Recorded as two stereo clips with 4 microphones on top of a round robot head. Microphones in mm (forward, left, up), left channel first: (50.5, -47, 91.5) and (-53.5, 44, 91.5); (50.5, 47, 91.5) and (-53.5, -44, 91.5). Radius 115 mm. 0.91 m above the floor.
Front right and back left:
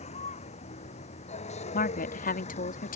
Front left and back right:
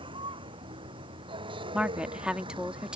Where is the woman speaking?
55° right.